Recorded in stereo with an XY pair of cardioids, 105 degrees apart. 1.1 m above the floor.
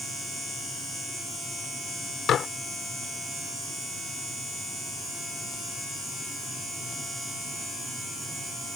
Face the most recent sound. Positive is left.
turn(degrees=60)